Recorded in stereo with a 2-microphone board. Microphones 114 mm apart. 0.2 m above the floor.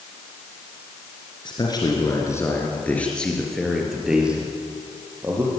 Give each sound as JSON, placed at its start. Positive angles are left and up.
{"t": 1.4, "sound": "a man speaking", "side_deg": 40, "distance_m": 4.0}